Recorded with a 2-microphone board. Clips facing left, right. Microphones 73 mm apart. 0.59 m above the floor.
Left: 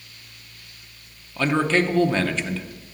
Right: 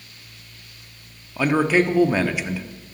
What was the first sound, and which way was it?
A man speaking, 10° right (ahead or behind).